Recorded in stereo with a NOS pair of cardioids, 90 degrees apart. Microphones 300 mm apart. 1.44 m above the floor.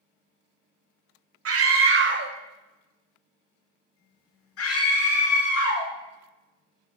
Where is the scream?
50° right, 1.3 m; by 5.9 s 70° left, 1.7 m.